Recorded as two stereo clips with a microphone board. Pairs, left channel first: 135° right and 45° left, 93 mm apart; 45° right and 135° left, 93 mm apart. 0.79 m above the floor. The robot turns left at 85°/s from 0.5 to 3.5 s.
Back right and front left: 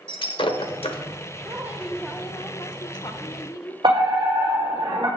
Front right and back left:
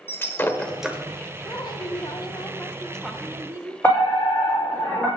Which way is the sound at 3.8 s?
25° left.